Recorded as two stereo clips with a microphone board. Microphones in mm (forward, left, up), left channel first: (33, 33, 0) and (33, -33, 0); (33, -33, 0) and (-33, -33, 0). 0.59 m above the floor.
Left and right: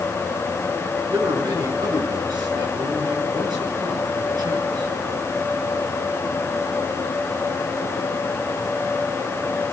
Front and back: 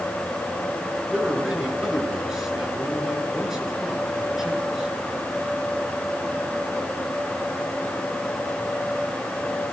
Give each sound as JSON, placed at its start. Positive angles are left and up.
{"t": 1.1, "sound": "a man speaking", "azimuth_deg": -95, "distance_m": 8.5}